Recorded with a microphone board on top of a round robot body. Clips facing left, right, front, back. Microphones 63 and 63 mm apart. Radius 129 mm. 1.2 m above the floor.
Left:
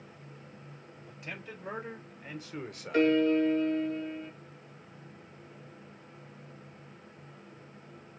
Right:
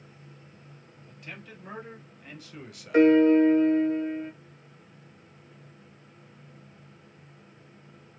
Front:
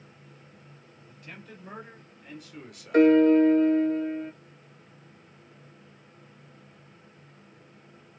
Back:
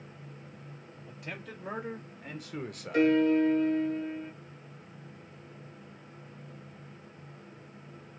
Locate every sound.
1.1 s a man speaking: 160° left, 3 m; by 3.2 s 130° left, 0.9 m
2.9 s a piano: 30° right, 1.1 m